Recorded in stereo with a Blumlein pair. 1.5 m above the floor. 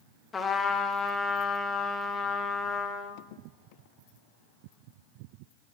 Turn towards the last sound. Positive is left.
turn(degrees=15)